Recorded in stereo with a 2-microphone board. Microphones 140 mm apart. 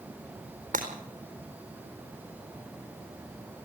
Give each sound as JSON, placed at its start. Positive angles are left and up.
{"t": 0.7, "sound": "breaking glass", "side_deg": -80, "distance_m": 4.0}